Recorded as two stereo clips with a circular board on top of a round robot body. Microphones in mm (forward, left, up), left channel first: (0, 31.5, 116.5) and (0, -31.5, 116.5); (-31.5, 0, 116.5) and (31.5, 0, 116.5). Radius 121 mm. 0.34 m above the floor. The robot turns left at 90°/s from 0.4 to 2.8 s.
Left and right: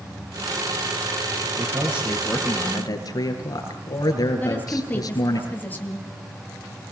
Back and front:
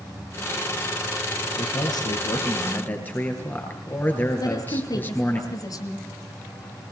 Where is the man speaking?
130° right, 8 m; by 5.4 s 120° left, 8 m.